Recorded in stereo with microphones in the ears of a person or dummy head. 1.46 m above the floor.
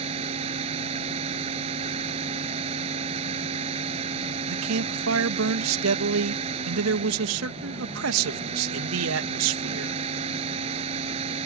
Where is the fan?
35° right (ahead or behind).